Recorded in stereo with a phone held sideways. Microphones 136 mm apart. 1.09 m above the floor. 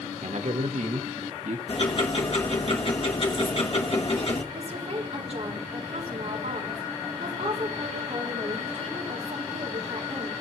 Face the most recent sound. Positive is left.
turn(degrees=-55)  # may be behind; listen again after turning